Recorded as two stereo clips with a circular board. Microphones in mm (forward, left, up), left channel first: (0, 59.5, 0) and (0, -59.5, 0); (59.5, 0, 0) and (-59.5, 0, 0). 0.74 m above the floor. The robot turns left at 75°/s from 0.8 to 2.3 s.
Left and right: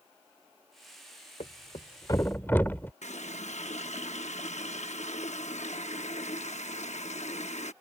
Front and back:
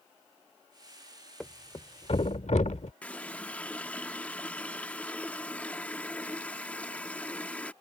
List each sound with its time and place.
1.4 s a thud: 85° left; by 2.9 s 15° left
3.0 s a running tap: 80° left